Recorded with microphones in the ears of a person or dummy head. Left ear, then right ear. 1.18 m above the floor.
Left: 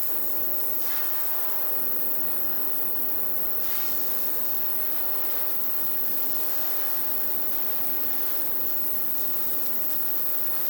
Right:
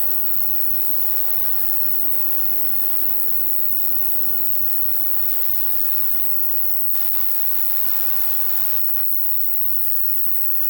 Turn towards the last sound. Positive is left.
turn(degrees=-5)  # may be behind; listen again after turning